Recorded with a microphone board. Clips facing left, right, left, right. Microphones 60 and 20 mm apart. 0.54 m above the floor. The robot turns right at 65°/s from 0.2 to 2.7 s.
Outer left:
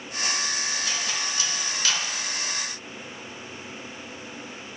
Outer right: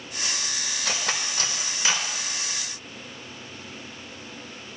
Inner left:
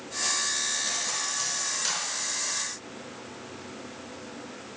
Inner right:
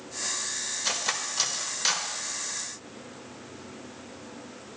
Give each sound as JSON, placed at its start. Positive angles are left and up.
{"t": 0.8, "sound": "cutlery clinking", "side_deg": -75, "distance_m": 0.8}